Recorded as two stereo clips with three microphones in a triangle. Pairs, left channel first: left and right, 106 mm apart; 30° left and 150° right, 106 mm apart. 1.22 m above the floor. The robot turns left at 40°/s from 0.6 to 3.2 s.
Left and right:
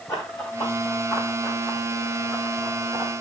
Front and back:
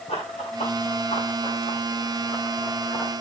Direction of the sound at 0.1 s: 35° left.